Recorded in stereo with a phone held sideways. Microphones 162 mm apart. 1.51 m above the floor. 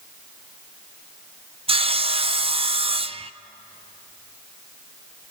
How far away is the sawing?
About 0.6 m.